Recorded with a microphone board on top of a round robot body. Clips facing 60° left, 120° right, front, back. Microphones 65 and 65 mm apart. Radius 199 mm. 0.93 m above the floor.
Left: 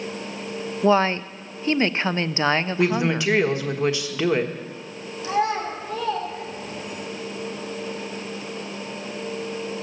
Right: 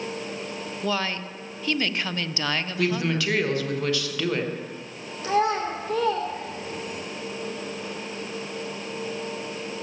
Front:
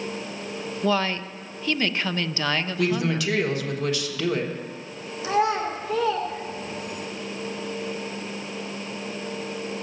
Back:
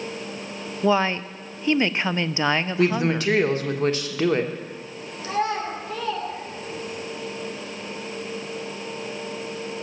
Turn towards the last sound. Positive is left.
turn(degrees=-75)